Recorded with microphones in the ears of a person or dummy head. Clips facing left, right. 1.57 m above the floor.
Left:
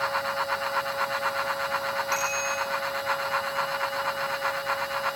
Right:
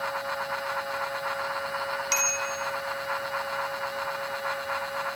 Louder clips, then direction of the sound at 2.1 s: Left 2 dB; 55° right (ahead or behind).